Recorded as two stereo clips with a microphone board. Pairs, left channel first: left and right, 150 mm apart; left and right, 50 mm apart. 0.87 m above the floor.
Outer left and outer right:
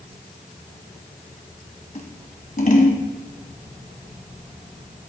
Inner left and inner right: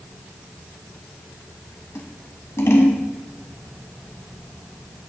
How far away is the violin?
No violin in this recording.